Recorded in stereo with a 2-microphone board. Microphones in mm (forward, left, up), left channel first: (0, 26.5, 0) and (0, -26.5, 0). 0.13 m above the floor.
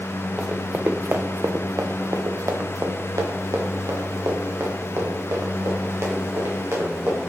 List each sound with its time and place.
0.4 s running footsteps: 20° right (ahead or behind), 0.8 m; by 7.3 s 55° right (ahead or behind), 3.5 m